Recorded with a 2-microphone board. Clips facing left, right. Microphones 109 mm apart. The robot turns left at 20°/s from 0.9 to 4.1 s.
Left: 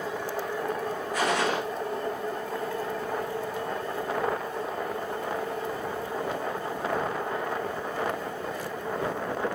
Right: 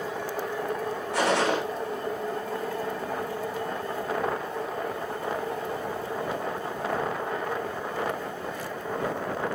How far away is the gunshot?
About 6 m.